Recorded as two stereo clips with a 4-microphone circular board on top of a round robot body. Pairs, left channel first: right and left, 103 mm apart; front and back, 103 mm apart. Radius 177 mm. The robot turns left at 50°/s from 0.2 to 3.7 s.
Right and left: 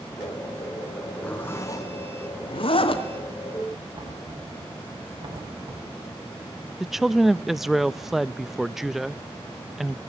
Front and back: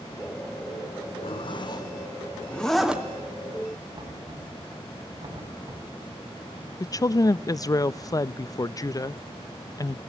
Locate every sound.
1.2 s a zipper: 10° right, 2.5 m; by 3.0 s 105° right, 2.5 m
3.9 s knocking: 130° left, 5.5 m
6.8 s a woman speaking: 5° left, 0.5 m